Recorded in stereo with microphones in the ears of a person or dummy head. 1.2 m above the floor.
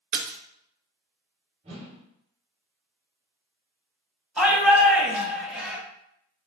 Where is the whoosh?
35° right (ahead or behind), 2.5 m.